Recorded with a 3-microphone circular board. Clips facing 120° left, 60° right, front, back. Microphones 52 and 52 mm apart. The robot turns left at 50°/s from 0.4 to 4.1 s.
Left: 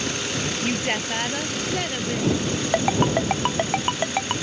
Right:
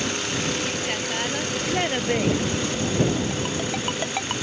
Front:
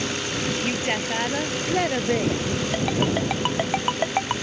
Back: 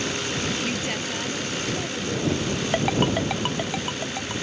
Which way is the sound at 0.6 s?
70° left.